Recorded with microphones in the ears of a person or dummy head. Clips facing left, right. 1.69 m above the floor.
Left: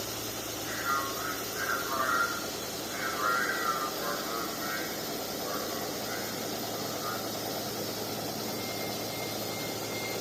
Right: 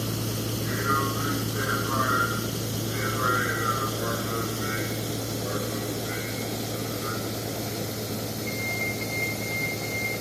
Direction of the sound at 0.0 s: 55° right (ahead or behind).